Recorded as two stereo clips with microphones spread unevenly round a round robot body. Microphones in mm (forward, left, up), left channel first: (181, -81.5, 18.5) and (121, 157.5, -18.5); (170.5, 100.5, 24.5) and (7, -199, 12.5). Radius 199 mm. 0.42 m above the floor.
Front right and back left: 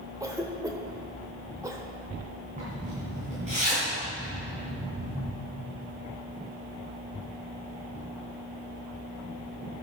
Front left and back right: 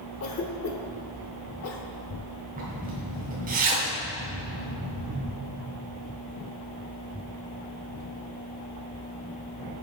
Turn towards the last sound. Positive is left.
turn(degrees=175)